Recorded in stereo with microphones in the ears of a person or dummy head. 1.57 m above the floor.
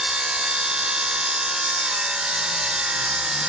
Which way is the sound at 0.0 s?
5° right (ahead or behind).